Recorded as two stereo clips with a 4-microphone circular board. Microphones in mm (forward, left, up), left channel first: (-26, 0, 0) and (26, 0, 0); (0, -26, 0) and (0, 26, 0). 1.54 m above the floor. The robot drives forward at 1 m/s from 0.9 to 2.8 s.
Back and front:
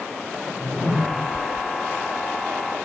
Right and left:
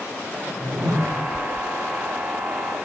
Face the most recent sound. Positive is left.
turn(degrees=130)